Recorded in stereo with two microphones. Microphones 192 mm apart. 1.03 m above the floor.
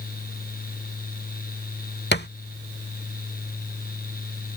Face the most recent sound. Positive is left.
turn(degrees=60)  # may be behind; listen again after turning